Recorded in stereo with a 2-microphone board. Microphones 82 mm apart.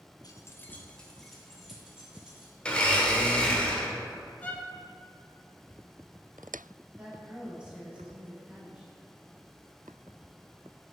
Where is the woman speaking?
15° right (ahead or behind), 1.9 m.